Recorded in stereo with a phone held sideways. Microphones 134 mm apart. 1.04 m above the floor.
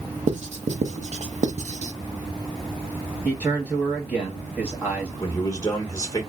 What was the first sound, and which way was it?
Writing, 60° right (ahead or behind).